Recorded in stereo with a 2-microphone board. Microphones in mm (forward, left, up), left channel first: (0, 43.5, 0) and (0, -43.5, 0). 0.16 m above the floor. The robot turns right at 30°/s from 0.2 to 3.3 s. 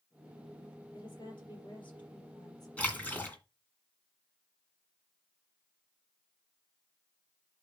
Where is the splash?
15° left (ahead or behind), 1.9 m; by 3.4 s 25° left (ahead or behind), 1.9 m.